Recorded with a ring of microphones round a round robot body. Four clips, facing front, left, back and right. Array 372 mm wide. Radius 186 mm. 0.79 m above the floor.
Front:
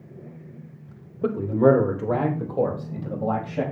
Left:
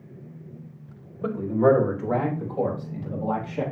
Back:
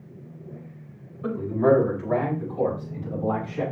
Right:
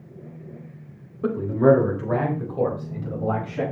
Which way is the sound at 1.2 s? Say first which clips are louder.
Right 2 dB, front 3 dB; 30° right.